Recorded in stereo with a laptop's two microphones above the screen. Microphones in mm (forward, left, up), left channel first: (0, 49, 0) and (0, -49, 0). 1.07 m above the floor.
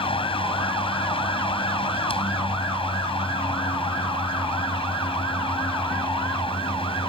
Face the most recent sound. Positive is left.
turn(degrees=65)  # may be behind; listen again after turning